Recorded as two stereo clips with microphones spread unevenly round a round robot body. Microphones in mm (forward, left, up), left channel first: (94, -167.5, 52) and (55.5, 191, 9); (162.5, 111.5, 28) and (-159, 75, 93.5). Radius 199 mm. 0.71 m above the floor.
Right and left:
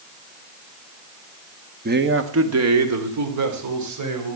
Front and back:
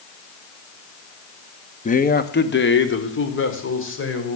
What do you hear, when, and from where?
1.9 s a man speaking: 50° left, 1.2 m; by 4.4 s 55° left, 4.5 m